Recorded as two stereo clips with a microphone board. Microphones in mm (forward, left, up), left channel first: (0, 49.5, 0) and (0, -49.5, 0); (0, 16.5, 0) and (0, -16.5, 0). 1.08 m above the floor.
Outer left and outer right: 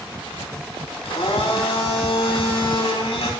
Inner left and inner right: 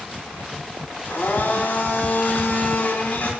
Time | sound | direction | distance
1.1 | a blender | 80° left | 3 m